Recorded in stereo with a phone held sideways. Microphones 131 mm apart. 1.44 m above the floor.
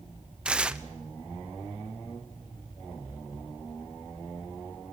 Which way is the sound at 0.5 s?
10° right (ahead or behind).